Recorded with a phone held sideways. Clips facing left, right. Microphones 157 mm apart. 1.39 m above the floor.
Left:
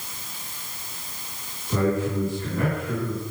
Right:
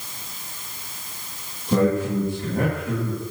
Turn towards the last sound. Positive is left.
turn(degrees=-50)  # may be behind; listen again after turning